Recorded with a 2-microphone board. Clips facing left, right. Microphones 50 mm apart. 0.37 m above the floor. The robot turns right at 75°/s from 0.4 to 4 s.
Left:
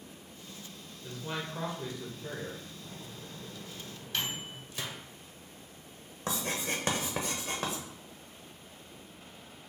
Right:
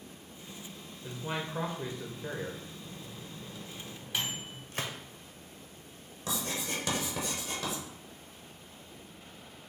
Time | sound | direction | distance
1.0 | a man speaking | 155° right | 0.9 m
2.8 | a microwave | 50° left (ahead or behind) | 1.5 m
4.7 | a gunshot | 45° right (ahead or behind) | 0.5 m
6.3 | writing | 35° left (ahead or behind) | 1.0 m